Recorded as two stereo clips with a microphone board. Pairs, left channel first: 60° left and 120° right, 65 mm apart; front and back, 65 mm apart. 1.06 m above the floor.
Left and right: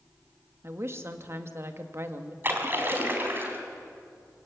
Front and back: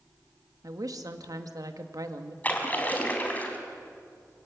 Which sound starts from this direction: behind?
A woman speaking, at 0.6 s.